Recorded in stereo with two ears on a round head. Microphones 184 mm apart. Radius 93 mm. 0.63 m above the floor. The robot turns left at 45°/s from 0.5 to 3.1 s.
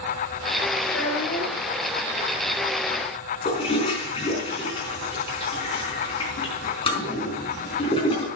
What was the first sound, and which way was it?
A child speaking, 70° left.